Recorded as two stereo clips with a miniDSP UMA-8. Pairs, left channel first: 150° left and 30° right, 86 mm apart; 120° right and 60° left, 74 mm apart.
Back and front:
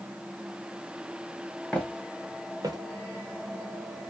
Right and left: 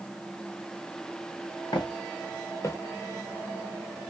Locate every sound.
1.7 s footsteps: 135° right, 1.1 m; by 2.8 s 70° right, 0.8 m